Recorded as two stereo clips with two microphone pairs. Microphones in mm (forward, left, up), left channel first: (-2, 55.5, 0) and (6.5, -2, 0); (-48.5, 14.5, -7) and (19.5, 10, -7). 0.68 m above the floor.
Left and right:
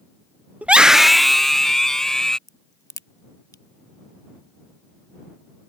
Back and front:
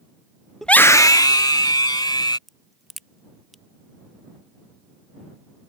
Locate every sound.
0.6 s a scream: 110° right; by 2.4 s straight behind
2.5 s a crack: 90° left